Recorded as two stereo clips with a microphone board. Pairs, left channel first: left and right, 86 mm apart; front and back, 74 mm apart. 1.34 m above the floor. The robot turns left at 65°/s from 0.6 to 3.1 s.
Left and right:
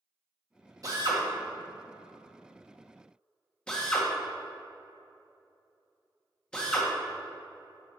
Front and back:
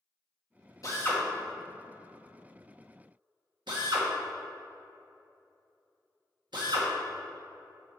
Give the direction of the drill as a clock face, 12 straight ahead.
1 o'clock.